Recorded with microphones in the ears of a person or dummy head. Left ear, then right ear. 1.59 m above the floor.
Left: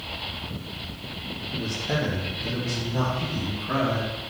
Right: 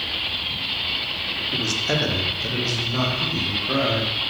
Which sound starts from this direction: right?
A man speaking, at 1.5 s.